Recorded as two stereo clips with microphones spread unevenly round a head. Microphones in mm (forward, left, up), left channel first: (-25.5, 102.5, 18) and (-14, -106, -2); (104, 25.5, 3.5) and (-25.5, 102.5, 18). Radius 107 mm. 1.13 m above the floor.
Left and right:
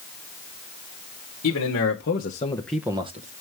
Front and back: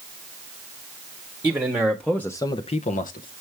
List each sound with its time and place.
1.4 s a man speaking: 70° left, 1.4 m; by 3.3 s 40° right, 1.0 m